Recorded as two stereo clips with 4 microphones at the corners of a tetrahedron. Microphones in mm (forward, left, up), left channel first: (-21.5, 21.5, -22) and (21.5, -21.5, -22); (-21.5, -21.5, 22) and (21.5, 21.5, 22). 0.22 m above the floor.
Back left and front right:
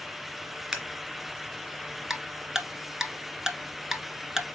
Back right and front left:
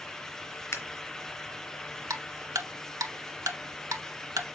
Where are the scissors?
115° right, 1.8 m.